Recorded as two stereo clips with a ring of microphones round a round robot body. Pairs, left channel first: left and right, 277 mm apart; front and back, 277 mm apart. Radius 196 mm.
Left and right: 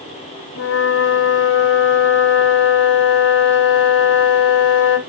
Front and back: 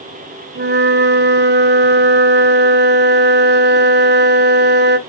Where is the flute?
135° left, 1.0 m.